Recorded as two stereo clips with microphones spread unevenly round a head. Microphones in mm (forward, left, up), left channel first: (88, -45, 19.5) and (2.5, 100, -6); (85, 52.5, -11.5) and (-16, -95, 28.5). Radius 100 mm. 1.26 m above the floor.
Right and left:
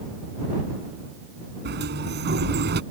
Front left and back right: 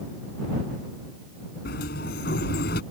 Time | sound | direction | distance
1.6 | a sliding door | 100° left | ?